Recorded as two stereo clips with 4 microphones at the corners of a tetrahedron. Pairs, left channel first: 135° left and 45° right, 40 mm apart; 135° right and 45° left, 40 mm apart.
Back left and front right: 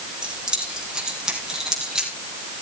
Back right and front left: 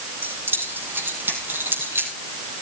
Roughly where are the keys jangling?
Ahead.